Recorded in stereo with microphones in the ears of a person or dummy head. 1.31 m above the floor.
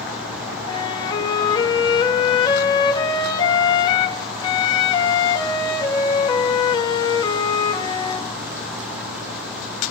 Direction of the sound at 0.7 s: 25° left (ahead or behind).